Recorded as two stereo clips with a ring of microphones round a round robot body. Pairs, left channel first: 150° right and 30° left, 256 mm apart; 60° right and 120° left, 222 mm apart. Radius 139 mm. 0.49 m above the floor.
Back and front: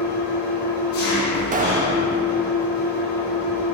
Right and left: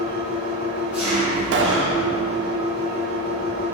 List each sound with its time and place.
0.0 s an engine running: 155° right, 2 m
1.5 s a pop: 90° left, 0.6 m